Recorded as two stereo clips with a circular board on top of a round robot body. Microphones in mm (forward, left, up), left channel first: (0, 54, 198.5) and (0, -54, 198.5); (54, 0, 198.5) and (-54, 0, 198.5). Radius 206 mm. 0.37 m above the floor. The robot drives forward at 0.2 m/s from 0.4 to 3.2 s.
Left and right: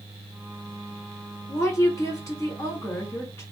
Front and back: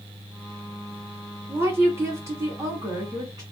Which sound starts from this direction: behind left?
A woman speaking, at 1.5 s.